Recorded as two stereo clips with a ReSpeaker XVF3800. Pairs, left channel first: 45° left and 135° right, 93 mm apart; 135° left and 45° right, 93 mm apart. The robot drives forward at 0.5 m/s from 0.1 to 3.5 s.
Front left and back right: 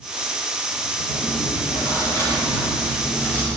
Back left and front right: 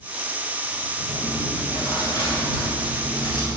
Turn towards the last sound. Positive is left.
turn(degrees=115)